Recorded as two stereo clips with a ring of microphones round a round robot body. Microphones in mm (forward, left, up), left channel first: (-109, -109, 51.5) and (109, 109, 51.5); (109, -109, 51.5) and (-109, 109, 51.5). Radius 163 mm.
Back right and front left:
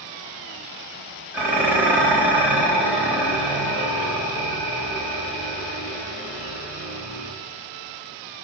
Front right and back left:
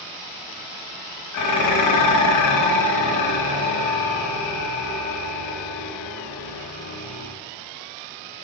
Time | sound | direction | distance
1.3 | dishes clattering | 40° right | 0.9 m